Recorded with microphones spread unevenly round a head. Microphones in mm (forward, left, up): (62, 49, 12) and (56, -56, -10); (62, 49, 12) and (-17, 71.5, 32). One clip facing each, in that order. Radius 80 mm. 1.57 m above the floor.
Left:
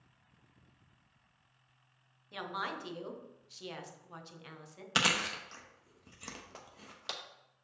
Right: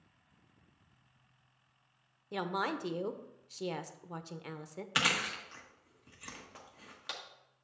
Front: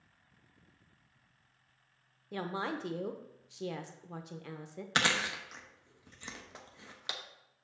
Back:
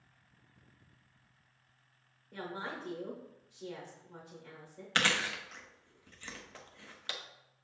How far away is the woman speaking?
About 0.7 m.